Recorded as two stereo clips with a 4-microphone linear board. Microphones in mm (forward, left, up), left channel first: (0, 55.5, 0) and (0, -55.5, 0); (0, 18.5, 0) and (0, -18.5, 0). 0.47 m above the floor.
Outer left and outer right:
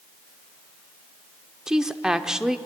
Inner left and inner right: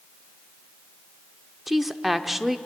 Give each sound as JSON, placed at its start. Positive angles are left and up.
{"t": 1.7, "sound": "a woman speaking", "side_deg": -5, "distance_m": 0.9}